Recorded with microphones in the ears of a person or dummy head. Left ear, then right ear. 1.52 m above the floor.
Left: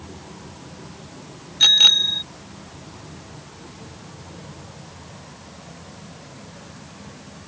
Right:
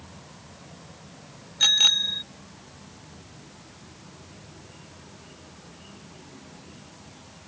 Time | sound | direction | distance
1.6 | a bicycle bell | 10° right (ahead or behind) | ?